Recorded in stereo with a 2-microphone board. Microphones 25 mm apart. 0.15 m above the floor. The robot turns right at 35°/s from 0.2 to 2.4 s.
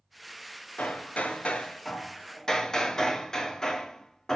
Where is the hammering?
105° left, 0.8 m; by 4.4 s 160° left, 0.8 m.